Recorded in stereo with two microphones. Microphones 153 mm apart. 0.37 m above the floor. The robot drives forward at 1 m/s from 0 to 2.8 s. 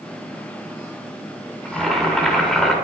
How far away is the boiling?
About 3 m.